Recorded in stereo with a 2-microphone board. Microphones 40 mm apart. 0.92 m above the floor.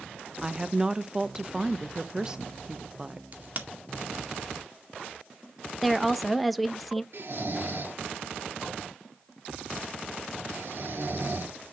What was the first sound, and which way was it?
A woman speaking, 20° right (ahead or behind).